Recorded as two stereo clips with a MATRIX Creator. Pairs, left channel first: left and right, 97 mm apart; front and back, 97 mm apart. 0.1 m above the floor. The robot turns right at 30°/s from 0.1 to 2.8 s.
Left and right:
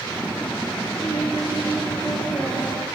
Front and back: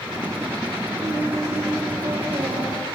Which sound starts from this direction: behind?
Singing, at 1.0 s.